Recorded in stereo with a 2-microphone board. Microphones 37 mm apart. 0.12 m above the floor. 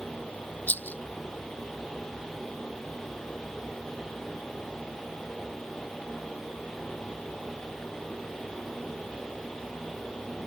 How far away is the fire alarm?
No fire alarm in this recording.